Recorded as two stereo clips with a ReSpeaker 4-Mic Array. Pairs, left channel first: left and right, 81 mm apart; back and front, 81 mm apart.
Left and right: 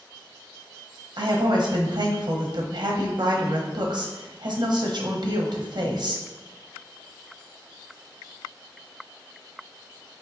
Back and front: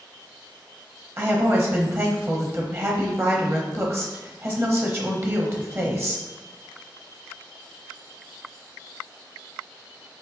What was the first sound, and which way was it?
A woman speaking, 60° right.